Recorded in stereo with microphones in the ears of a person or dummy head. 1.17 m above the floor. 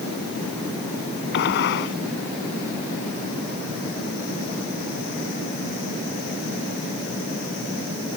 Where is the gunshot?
60° left (ahead or behind).